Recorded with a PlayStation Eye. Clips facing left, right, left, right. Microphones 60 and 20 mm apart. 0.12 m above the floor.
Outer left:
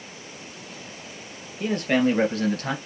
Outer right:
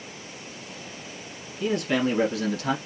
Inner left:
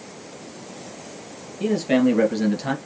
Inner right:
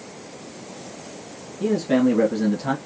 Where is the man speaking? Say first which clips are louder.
Outer left 2 dB, even; 45° left (ahead or behind), 2.0 m; by 2.8 s 50° left (ahead or behind), 1.6 m.